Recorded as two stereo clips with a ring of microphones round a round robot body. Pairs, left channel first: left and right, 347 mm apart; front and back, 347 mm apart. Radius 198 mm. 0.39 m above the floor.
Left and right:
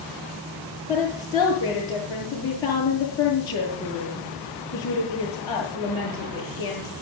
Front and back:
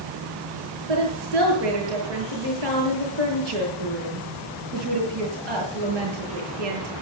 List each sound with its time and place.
0.9 s a woman speaking: 170° left, 8.5 m